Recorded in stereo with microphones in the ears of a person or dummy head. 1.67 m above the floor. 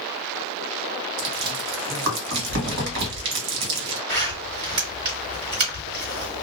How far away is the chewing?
About 1.4 m.